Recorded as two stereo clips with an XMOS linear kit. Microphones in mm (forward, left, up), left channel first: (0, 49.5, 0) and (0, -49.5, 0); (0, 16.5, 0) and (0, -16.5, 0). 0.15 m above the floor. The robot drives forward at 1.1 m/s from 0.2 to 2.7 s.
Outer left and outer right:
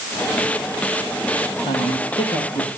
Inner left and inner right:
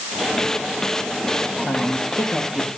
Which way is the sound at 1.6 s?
70° left (ahead or behind).